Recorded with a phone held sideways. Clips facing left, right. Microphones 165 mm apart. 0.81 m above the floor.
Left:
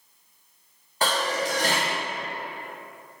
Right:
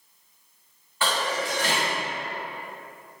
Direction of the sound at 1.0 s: 40° left (ahead or behind).